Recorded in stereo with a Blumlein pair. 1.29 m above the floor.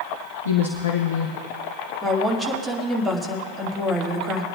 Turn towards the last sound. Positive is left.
turn(degrees=-5)